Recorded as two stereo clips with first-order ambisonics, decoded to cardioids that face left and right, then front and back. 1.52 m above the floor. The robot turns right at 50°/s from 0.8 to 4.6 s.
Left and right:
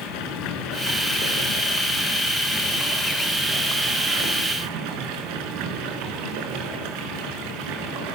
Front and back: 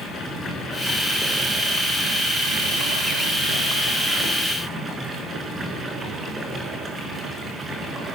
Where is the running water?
65° left, 5.5 m; by 8.2 s 105° right, 5.5 m.